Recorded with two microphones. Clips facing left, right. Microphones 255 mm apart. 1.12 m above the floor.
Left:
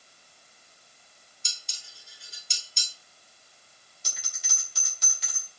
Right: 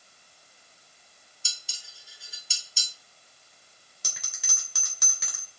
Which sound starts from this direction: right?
A bell, at 4.0 s.